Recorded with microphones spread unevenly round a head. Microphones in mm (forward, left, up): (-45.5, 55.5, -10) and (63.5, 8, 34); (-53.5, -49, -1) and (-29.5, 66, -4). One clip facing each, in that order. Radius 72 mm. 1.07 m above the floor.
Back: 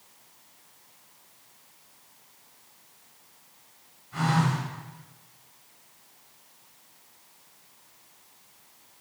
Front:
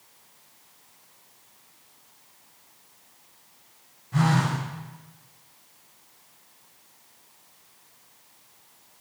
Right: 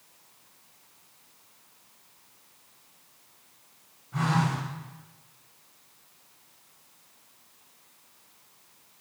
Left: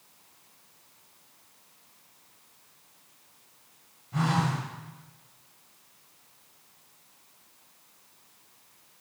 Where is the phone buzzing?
10° left, 2.5 m.